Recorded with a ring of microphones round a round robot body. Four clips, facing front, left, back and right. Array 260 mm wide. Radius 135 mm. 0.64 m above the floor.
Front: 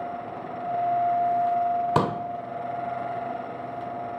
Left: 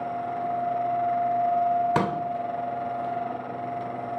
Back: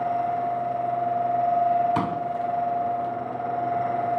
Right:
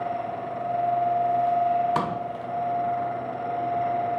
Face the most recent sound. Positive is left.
turn(degrees=25)